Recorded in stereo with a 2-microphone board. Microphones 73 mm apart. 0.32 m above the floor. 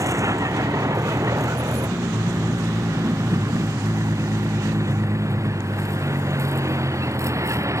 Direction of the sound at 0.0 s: 45° right (ahead or behind).